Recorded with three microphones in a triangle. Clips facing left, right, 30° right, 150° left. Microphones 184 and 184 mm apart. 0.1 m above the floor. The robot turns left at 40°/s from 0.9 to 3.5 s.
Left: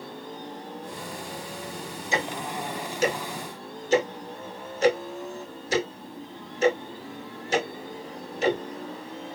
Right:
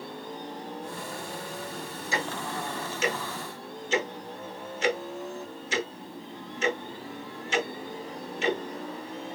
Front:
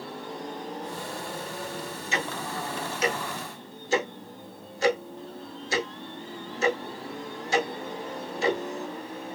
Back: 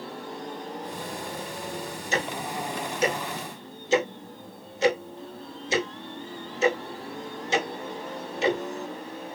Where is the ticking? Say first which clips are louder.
Left 3 dB, back 3 dB; 145° left, 0.9 m; by 8.6 s 90° left, 0.9 m.